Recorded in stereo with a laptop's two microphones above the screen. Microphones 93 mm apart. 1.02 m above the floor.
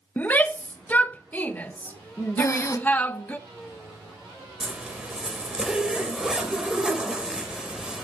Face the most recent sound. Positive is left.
turn(degrees=-10)  # may be behind; listen again after turning